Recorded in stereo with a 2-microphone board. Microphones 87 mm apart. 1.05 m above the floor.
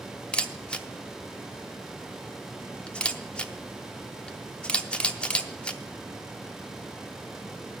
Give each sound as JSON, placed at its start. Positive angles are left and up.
{"t": 0.3, "sound": "a camera shutter", "side_deg": 10, "distance_m": 0.6}